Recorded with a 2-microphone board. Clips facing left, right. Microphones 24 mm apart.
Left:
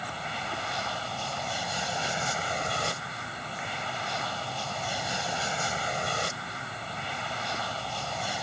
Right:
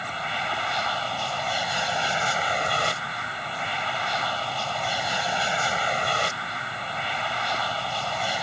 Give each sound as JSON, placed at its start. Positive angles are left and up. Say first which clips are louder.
{"t": 0.0, "sound": "an aircraft", "louder": "right 6 dB", "side_deg": -25}